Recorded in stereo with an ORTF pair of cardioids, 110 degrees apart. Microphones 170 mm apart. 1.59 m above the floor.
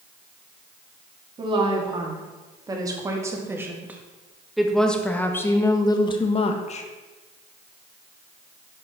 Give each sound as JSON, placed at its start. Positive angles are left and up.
{"t": 1.4, "sound": "a woman speaking", "azimuth_deg": -30, "distance_m": 3.0}